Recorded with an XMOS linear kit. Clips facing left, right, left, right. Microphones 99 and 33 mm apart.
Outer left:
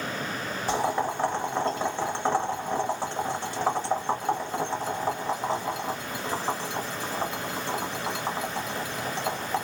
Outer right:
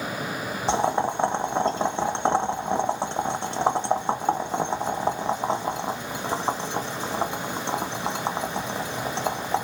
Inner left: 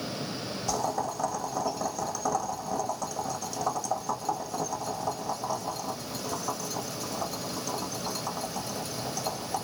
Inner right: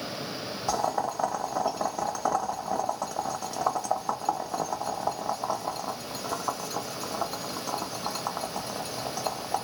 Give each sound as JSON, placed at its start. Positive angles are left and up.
{"t": 0.7, "sound": "boiling", "side_deg": -25, "distance_m": 0.8}